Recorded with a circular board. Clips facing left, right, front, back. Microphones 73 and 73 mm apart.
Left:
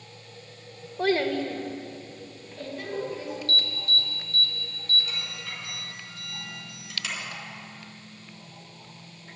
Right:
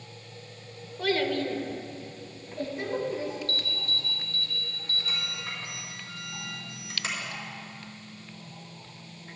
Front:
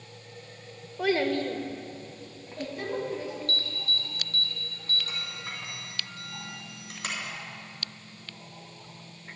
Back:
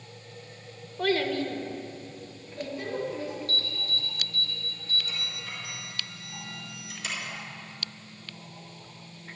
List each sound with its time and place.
1.0 s a child speaking: 80° left, 0.8 m; by 3.4 s 25° right, 3.5 m
3.5 s an alarm: 30° right, 3.5 m